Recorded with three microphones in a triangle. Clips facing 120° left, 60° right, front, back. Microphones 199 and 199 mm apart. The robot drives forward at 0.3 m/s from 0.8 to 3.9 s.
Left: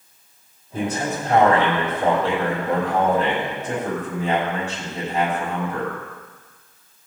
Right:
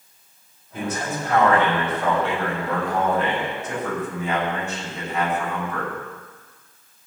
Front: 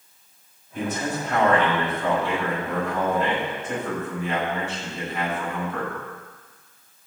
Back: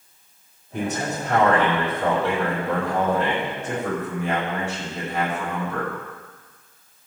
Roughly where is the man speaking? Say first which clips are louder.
Left 3 dB, back 1 dB; behind.